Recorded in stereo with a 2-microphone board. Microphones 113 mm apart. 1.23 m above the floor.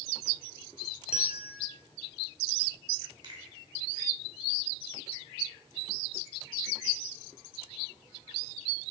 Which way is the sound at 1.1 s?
65° left (ahead or behind).